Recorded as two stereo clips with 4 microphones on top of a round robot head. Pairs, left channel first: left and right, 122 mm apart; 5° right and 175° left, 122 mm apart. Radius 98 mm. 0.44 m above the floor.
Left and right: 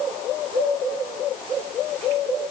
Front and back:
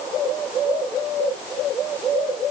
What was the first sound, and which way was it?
Only background noise.